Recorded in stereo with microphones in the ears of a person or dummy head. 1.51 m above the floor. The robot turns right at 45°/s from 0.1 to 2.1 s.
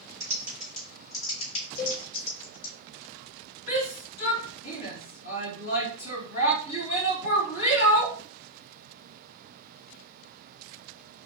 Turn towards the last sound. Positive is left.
turn(degrees=85)